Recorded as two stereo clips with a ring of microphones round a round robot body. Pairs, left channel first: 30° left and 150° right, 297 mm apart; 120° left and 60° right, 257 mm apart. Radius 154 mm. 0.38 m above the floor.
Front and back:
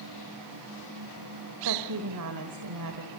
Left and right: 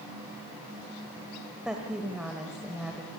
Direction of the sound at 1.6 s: 145° right.